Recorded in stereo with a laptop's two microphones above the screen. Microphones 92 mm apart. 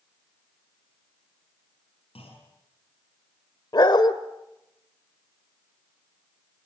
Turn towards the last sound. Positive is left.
turn(degrees=50)  # may be behind; listen again after turning